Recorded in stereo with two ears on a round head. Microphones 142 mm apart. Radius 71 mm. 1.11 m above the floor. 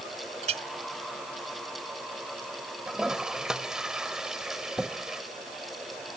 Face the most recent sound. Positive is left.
turn(degrees=-5)  # may be behind; listen again after turning